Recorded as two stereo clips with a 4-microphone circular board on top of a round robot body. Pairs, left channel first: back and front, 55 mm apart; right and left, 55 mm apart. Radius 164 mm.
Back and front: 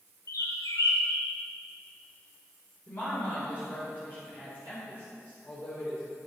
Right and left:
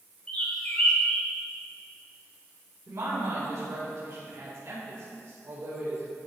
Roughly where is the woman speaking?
Behind left.